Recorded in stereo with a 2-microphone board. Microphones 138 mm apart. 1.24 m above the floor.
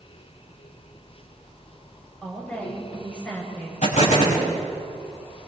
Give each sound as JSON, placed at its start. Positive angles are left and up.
{"t": 2.2, "sound": "a woman speaking", "side_deg": 10, "distance_m": 7.0}
{"t": 3.8, "sound": "an explosion", "side_deg": 65, "distance_m": 5.5}